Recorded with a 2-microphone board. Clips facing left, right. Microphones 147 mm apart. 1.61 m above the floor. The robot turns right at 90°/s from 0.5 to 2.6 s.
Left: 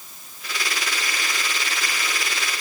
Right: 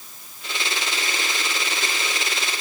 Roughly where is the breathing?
No breathing in this recording.